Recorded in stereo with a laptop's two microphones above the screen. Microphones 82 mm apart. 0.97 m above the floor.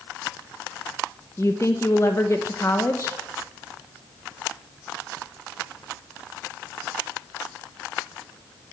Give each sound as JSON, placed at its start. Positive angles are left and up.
{"t": 1.4, "sound": "a woman speaking", "side_deg": 35, "distance_m": 0.7}